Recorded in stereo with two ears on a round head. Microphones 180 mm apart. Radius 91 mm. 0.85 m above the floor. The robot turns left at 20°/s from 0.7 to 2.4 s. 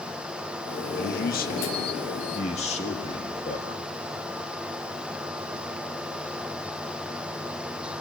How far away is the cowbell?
No cowbell in this recording.